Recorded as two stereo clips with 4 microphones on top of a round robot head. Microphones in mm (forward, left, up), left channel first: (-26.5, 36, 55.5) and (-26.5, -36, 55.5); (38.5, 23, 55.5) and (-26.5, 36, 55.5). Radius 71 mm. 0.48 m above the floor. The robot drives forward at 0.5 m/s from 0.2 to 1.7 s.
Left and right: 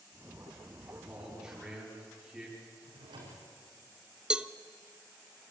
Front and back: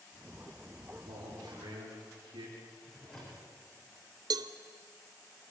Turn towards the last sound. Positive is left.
turn(degrees=-165)